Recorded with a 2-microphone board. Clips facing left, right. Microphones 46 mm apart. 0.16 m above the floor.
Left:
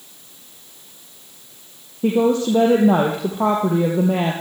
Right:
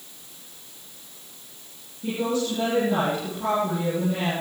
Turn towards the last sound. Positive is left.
turn(degrees=70)  # may be behind; listen again after turning